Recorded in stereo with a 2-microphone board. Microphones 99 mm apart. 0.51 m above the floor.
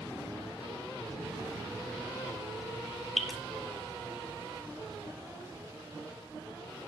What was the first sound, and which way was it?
Dripping, centre (ahead or behind).